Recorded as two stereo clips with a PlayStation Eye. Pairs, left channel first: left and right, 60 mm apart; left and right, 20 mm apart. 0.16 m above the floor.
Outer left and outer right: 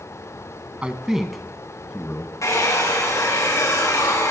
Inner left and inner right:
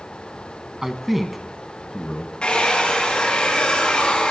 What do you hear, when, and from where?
0.8 s a man speaking: 20° right (ahead or behind), 1.3 m; by 2.3 s 30° left (ahead or behind), 1.5 m
2.4 s a hair dryer: 60° left (ahead or behind), 6 m